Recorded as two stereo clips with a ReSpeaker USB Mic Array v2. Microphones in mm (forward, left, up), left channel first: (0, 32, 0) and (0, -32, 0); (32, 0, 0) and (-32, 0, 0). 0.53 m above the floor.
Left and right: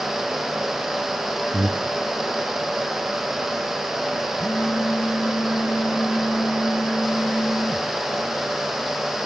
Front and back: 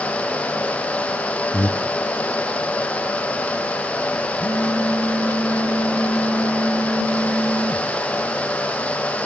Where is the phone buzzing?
135° left, 3.5 m.